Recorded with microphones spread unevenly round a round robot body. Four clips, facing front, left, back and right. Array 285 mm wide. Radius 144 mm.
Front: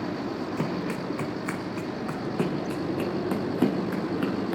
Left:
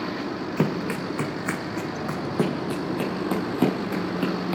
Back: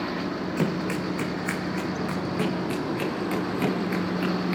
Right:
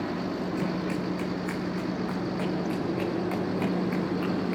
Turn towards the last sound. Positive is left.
turn(degrees=55)